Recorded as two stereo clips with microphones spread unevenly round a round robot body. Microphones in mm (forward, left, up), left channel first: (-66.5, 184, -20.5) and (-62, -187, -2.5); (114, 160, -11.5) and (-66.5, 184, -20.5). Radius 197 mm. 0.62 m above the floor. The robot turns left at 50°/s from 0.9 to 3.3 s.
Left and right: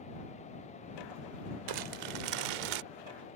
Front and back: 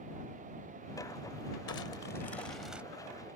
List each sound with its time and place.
1.7 s crumpling: 45° right; by 2.8 s 105° right